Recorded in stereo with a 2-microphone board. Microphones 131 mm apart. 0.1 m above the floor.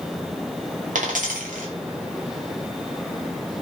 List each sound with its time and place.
0.9 s a dropped coin: 80° right, 0.9 m